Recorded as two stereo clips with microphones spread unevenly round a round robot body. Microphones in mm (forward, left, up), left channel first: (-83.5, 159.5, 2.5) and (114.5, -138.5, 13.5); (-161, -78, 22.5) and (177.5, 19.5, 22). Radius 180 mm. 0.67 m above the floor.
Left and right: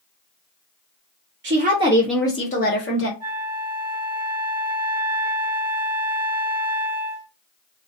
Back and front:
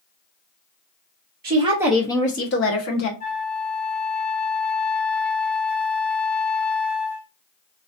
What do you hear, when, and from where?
1.4 s a woman speaking: 25° right, 0.7 m; by 3.1 s 165° left, 1.0 m
3.2 s a flute: 140° right, 1.4 m